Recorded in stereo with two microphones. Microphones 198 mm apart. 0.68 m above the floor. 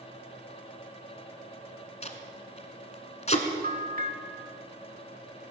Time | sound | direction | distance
2.0 | tape being pulled | 35° left (ahead or behind) | 1.5 m
3.6 | a bell | 45° right (ahead or behind) | 1.6 m